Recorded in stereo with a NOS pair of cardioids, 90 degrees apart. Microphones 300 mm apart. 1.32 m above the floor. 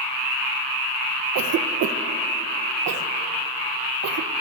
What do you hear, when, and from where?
1.4 s a cough: 70° right, 1.6 m